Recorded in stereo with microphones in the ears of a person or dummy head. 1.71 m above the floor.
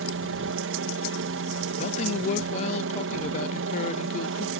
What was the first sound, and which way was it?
A helicopter, 60° right (ahead or behind).